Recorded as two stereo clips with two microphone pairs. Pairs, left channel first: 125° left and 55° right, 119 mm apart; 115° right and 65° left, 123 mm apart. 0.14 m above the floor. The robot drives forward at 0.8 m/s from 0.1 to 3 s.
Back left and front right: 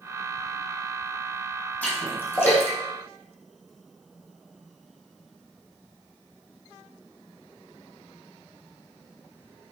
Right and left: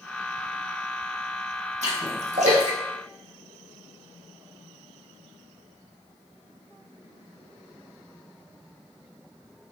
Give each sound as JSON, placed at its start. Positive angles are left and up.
{"t": 1.8, "sound": "a splash", "azimuth_deg": 50, "distance_m": 5.5}